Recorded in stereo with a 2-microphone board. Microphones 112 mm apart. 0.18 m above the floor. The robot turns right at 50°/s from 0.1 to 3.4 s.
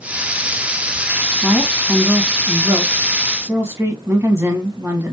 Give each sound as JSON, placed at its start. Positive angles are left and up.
{"t": 1.4, "sound": "a woman speaking", "side_deg": 0, "distance_m": 1.1}